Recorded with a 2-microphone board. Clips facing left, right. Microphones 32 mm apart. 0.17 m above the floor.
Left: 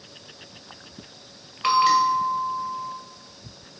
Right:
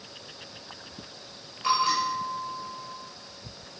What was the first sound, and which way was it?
A bell, 55° left (ahead or behind).